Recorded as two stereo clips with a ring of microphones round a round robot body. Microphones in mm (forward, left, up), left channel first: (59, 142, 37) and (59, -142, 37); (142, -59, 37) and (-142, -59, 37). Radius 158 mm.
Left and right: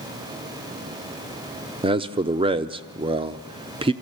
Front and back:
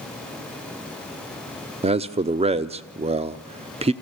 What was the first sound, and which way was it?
A man speaking, 140° right.